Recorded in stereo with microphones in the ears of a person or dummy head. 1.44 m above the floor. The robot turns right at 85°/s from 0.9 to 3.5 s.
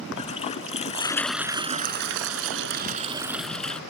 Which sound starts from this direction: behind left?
A toilet flushing, at 0.2 s.